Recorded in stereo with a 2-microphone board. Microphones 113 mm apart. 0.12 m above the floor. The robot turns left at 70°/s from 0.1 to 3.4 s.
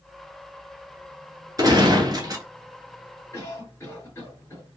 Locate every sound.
1.6 s a gunshot: 65° right, 0.9 m; by 2.5 s 125° right, 0.9 m
3.3 s a cough: 25° left (ahead or behind), 1.9 m; by 4.6 s 20° left (ahead or behind), 1.9 m